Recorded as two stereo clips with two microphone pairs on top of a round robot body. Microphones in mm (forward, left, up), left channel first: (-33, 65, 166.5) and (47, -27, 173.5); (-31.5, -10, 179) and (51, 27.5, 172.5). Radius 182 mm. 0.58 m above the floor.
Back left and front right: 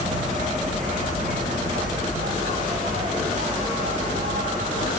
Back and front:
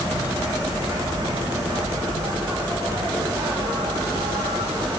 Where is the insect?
25° right, 8.5 m.